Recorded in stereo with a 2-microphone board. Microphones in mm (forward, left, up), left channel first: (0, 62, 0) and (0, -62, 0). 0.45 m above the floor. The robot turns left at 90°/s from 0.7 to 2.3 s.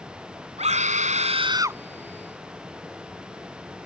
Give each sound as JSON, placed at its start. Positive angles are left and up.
{"t": 0.6, "sound": "a scream", "azimuth_deg": -65}